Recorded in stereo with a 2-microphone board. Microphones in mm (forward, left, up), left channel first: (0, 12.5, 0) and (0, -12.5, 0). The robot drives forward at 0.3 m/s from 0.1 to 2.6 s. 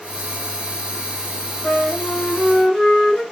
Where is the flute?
25° left (ahead or behind), 1.8 m; by 3.2 s 20° left (ahead or behind), 2.0 m.